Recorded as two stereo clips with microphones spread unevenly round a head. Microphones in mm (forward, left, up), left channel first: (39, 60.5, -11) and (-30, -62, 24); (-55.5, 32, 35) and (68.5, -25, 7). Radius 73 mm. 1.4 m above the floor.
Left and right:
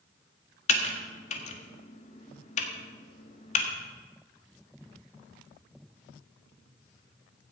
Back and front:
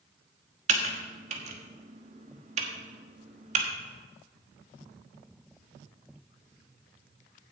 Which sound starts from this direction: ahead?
Typing on a keyboard, at 0.7 s.